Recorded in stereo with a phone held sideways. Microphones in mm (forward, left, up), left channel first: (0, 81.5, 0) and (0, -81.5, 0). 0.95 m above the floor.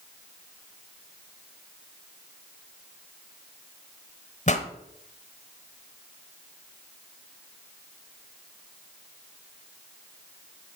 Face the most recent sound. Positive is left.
turn(degrees=45)  # may be behind; listen again after turning